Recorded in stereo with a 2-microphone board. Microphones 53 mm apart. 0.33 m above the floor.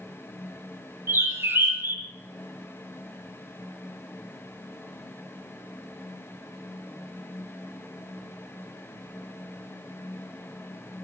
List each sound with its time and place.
1.1 s a bird: 50° right (ahead or behind), 0.8 m